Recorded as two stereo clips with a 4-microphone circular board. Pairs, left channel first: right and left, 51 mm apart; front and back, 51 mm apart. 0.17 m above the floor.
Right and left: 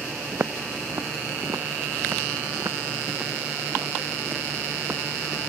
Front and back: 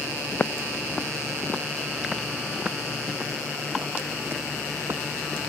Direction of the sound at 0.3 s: 60° left.